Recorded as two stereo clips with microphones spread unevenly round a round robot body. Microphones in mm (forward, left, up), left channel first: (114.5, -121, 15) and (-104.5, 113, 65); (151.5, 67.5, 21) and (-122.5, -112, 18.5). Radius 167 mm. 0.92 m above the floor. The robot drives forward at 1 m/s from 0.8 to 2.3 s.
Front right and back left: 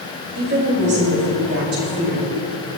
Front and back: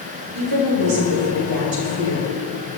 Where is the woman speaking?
165° right, 5 m; by 2.3 s 170° right, 6.5 m.